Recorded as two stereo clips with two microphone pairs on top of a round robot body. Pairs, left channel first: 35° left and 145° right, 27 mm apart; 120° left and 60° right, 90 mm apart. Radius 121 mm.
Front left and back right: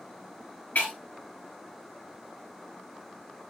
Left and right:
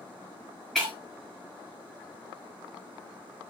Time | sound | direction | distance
0.8 | breaking glass | 35° left | 7 m